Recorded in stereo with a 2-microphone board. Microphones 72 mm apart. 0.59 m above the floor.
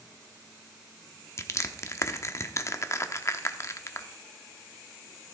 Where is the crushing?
40° left (ahead or behind), 0.9 m.